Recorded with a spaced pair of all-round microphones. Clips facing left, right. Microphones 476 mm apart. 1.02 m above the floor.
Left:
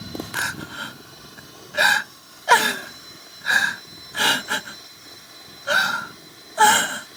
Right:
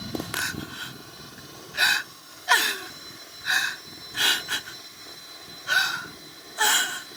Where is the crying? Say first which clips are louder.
Left 1 dB; 80° left.